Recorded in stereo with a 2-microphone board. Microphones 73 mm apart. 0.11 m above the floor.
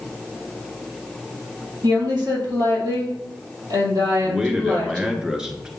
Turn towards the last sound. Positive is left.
turn(degrees=-10)  # may be behind; listen again after turning